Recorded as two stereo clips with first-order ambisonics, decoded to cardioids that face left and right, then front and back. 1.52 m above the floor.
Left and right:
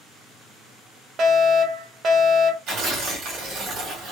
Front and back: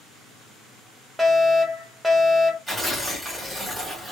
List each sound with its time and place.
1.2 s a fire alarm: 95° right, 0.7 m
2.7 s tearing paper: 90° right, 1.2 m